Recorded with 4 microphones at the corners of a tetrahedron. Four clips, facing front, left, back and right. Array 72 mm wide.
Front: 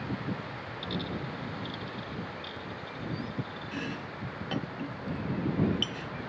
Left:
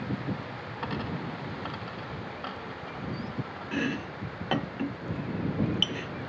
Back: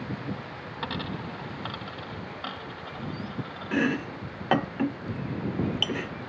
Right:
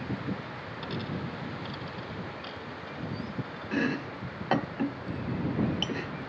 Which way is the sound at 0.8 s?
150° left.